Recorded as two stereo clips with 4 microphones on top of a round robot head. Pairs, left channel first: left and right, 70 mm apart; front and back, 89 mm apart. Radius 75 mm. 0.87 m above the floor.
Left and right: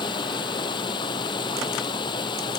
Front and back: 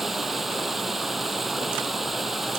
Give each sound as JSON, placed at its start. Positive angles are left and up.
{"t": 0.0, "sound": "running water", "azimuth_deg": 90}